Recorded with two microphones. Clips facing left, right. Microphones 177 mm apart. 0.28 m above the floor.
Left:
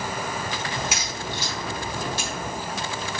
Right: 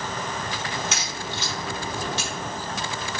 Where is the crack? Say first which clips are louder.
Left 1 dB; 10° left (ahead or behind), 1.6 m.